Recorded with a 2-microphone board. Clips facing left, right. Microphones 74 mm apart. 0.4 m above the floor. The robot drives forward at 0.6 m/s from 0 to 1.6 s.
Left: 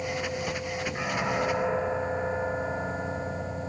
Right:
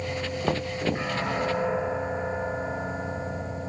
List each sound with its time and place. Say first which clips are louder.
0.4 s knocking: right 5 dB; 40° right (ahead or behind); by 1.1 s 35° right (ahead or behind)